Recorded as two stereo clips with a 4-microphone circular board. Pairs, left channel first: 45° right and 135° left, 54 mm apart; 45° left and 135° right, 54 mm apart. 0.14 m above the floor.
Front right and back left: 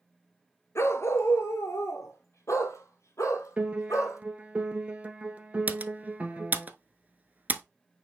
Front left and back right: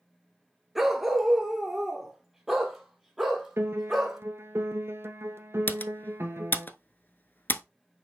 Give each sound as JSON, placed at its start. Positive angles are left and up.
{"t": 0.8, "sound": "a dog barking", "azimuth_deg": -50, "distance_m": 1.0}
{"t": 3.6, "sound": "a piano", "azimuth_deg": -160, "distance_m": 1.5}
{"t": 5.7, "sound": "typing on a keyboard", "azimuth_deg": 85, "distance_m": 0.7}